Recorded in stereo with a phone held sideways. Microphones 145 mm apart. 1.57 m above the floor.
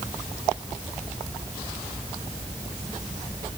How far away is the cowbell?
No cowbell in this recording.